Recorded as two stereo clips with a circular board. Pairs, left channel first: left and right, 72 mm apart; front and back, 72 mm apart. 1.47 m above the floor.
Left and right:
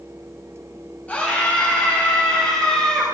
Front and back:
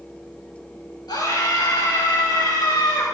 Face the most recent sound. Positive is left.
turn(degrees=5)